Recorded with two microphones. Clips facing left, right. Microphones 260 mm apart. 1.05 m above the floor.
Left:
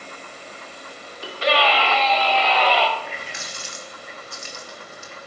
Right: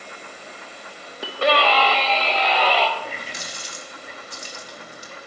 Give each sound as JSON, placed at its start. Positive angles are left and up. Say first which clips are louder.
{"t": 1.2, "sound": "a scream", "louder": "right 2 dB", "side_deg": -60, "distance_m": 1.3}
{"t": 3.0, "sound": "a running tap", "louder": "right 1 dB", "side_deg": -40, "distance_m": 1.1}